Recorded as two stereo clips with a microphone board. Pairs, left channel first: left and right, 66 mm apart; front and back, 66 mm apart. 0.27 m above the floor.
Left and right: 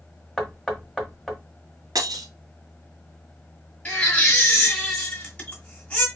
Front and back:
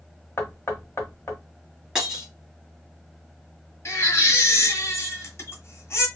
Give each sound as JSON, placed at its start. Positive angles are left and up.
{"t": 0.4, "sound": "knocking", "azimuth_deg": 5, "distance_m": 1.1}
{"t": 1.9, "sound": "breaking glass", "azimuth_deg": -95, "distance_m": 1.3}
{"t": 3.9, "sound": "a baby crying", "azimuth_deg": 25, "distance_m": 1.5}